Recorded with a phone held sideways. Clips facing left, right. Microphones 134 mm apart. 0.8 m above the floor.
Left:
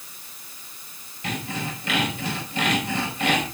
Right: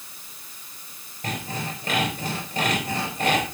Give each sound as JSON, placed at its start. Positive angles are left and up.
{"t": 1.2, "sound": "sawing", "side_deg": -40, "distance_m": 5.0}